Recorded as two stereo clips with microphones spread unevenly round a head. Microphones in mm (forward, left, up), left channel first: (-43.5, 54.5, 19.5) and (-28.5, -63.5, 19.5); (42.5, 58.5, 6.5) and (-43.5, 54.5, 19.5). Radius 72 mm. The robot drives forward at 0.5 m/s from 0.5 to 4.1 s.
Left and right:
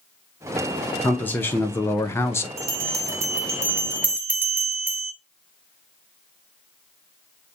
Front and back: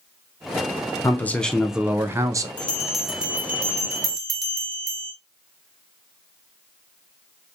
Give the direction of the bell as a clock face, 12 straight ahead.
1 o'clock.